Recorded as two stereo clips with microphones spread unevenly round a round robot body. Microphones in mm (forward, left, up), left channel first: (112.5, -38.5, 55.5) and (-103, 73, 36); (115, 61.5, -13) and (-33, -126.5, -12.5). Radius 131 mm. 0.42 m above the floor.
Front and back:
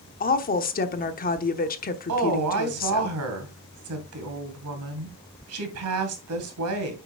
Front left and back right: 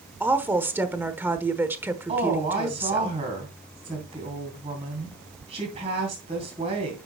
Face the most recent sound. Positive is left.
turn(degrees=165)